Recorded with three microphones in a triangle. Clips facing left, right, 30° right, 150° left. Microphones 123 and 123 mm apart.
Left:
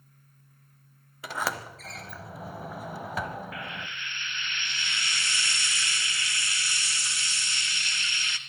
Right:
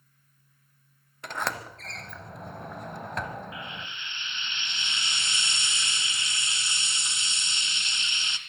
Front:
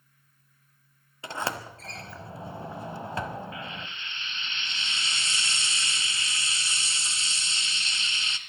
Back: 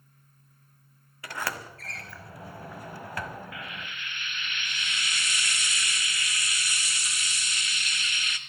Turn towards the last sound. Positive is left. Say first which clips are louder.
# left 1 dB, front 2 dB
turn(degrees=-50)